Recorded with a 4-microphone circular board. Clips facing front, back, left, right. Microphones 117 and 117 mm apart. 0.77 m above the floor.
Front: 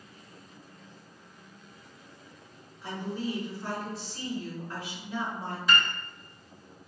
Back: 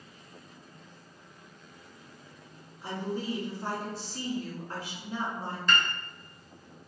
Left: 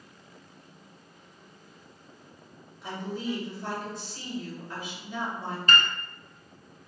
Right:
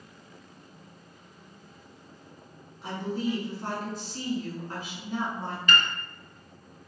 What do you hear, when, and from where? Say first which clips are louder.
2.8 s a woman speaking: even, right 3 dB; 130° right, 1.8 m
5.7 s a piano: front 1 dB, left 1 dB; 80° left, 0.5 m